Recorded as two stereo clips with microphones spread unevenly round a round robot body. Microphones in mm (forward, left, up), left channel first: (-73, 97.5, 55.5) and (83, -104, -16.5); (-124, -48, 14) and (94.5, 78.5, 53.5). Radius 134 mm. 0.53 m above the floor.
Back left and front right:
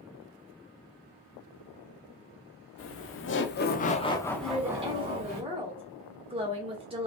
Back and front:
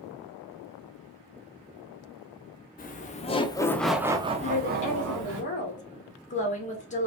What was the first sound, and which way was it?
Laughter, 170° left.